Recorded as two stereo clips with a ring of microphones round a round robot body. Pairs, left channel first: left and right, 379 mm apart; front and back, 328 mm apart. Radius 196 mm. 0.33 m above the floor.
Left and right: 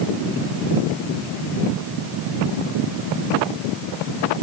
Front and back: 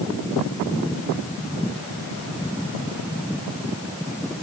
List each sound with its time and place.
Only background noise.